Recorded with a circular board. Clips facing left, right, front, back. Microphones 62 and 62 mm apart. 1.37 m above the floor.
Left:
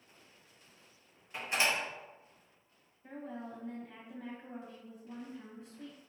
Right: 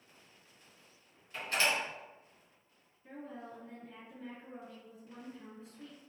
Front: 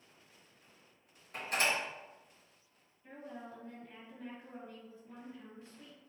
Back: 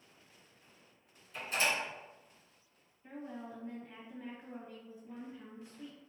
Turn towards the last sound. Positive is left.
turn(degrees=110)